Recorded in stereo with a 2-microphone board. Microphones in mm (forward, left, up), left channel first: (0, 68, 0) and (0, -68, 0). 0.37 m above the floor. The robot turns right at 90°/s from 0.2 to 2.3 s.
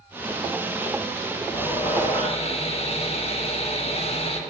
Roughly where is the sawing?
Ahead left.